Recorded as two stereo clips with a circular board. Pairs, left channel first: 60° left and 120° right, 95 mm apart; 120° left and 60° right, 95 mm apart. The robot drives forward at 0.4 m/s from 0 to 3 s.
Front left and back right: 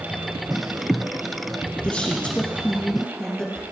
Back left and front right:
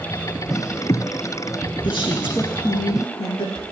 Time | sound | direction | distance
1.8 | a woman speaking | 140° left | 2.5 m